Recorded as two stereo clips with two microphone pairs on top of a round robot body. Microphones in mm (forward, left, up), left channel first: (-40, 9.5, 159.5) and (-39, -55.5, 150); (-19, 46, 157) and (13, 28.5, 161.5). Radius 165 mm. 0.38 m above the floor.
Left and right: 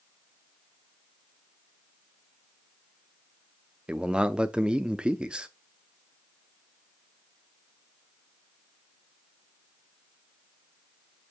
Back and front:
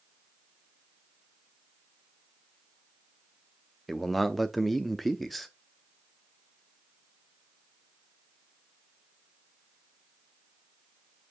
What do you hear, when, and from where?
3.9 s a man speaking: 135° right, 0.8 m